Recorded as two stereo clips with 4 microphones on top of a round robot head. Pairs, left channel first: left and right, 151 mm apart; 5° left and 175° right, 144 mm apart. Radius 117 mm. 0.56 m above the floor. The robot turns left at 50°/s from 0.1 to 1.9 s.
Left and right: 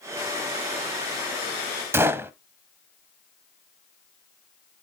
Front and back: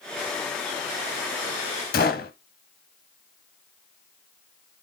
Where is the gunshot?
20° right, 0.5 m.